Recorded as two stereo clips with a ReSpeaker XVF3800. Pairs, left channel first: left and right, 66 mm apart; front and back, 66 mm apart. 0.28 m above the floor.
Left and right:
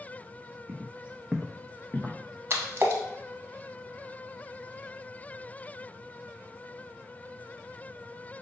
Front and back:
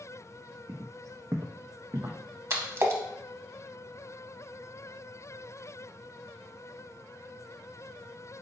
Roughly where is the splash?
Behind right.